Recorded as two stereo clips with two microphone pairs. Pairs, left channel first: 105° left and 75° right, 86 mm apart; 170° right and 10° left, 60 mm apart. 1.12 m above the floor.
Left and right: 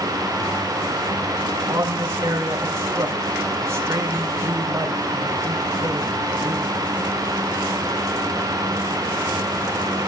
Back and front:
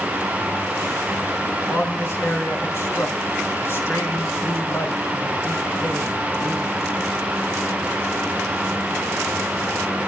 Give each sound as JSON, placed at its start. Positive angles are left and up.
{"t": 1.5, "sound": "a man speaking", "azimuth_deg": -135, "distance_m": 6.0}